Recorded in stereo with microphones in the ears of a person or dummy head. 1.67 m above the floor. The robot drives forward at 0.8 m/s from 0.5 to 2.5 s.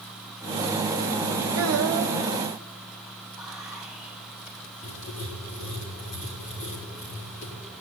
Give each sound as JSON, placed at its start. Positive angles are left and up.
{"t": 1.6, "sound": "a child speaking", "side_deg": -65, "distance_m": 1.3}
{"t": 3.4, "sound": "whispering", "side_deg": -5, "distance_m": 3.5}
{"t": 4.8, "sound": "writing", "side_deg": 40, "distance_m": 3.5}